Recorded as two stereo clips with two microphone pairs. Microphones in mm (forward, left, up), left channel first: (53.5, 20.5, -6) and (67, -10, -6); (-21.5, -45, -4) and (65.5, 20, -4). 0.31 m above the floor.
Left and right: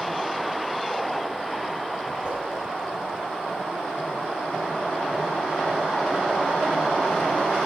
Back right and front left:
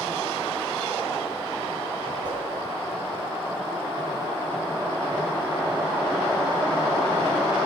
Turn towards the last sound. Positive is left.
turn(degrees=-10)